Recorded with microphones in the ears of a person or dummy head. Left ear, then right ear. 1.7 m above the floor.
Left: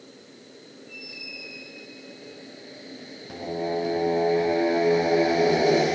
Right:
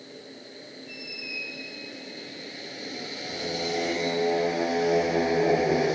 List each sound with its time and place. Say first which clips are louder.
0.9 s a squeak: right 2 dB; 40° right (ahead or behind), 6 m
3.3 s singing: left 1 dB; 50° left (ahead or behind), 5 m